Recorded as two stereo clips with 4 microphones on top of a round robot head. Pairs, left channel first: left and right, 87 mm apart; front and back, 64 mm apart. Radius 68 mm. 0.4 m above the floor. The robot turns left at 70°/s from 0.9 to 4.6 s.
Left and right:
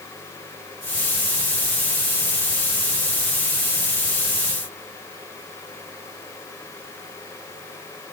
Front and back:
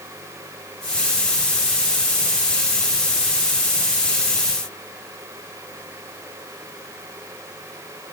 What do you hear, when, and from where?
Only background noise.